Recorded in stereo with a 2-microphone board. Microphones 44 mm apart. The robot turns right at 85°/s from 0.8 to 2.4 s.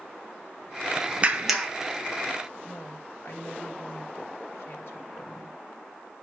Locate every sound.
1.2 s a clap: 30° right, 1.3 m; by 1.7 s 10° left, 1.3 m
2.6 s a woman speaking: 65° left (ahead or behind), 3 m